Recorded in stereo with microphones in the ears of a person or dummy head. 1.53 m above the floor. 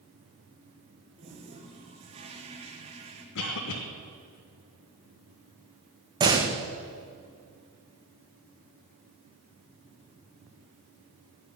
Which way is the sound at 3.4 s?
60° left (ahead or behind).